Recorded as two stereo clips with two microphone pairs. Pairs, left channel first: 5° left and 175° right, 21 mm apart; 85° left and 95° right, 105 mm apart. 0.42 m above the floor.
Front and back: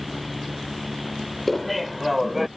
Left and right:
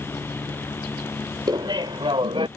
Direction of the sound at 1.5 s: 75° right.